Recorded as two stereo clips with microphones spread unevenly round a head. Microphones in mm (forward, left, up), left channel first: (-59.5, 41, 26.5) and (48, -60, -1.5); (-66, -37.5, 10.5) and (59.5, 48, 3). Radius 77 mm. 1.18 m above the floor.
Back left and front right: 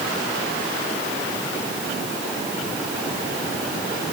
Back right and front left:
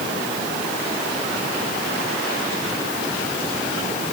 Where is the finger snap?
I don't hear a finger snap.